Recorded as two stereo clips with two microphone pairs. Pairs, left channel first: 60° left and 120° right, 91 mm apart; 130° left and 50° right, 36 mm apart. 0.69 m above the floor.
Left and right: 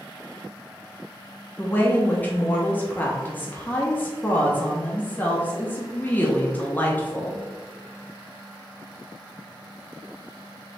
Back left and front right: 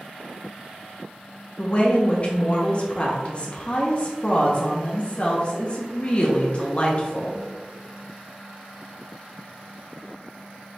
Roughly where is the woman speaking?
Left.